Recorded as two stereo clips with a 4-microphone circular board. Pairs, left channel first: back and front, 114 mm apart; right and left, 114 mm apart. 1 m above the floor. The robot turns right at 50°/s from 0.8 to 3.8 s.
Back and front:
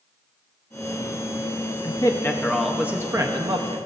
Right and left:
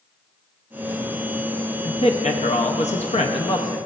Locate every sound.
1.8 s a man speaking: 130° right, 0.7 m; by 3.9 s 30° right, 0.7 m